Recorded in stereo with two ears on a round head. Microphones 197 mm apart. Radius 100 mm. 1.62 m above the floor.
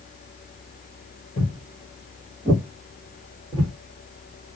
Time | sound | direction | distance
1.4 | footsteps | 30° left (ahead or behind) | 1.8 m